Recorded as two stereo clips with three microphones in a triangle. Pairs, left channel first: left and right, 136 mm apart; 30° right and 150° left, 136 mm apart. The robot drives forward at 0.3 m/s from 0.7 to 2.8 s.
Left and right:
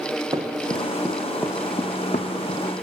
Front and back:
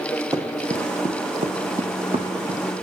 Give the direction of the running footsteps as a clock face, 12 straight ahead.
5 o'clock.